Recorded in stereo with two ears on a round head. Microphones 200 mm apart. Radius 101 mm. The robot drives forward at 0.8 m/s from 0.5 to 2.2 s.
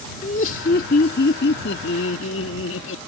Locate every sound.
0.2 s laughter: 40° left (ahead or behind); by 3.0 s 60° left (ahead or behind)